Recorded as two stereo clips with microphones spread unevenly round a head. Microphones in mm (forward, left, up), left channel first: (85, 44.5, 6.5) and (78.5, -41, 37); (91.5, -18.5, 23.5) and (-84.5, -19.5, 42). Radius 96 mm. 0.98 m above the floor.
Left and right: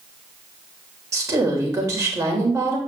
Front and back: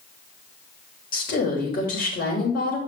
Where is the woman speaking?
40° right, 4 m.